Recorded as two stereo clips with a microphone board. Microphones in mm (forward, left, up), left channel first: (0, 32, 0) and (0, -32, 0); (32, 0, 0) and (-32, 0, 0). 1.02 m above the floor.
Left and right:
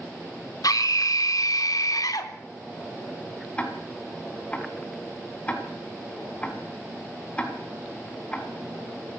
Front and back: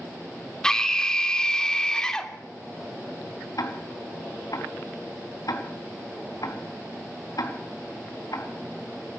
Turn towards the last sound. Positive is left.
turn(degrees=20)